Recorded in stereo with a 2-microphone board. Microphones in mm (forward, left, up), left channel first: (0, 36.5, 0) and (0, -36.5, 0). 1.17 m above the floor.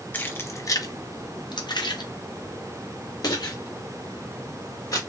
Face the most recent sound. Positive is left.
turn(degrees=55)  # may be behind; listen again after turning